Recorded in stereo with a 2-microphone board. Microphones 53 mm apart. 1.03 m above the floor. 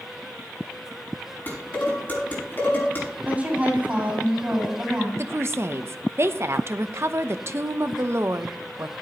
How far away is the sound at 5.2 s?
About 0.7 m.